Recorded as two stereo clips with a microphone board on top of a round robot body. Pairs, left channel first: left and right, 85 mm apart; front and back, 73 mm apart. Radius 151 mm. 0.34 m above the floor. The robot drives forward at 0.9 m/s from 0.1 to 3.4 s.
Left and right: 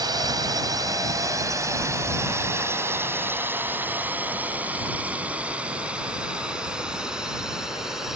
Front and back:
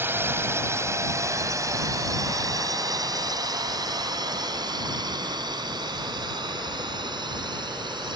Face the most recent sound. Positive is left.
turn(degrees=-175)